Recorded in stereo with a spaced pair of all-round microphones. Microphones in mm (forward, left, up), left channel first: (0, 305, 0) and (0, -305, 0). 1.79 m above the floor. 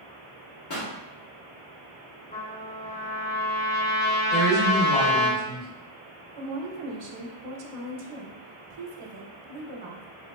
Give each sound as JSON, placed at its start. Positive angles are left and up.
{"t": 0.7, "sound": "a pop", "side_deg": 40, "distance_m": 0.6}
{"t": 2.3, "sound": "a trumpet", "side_deg": 15, "distance_m": 0.7}
{"t": 4.3, "sound": "a woman speaking", "side_deg": 45, "distance_m": 1.9}
{"t": 6.4, "sound": "a woman speaking", "side_deg": -60, "distance_m": 0.6}